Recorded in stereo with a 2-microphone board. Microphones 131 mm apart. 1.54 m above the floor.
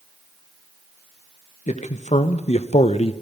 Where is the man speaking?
60° left (ahead or behind), 1.6 m; by 3.1 s 45° left (ahead or behind), 0.8 m.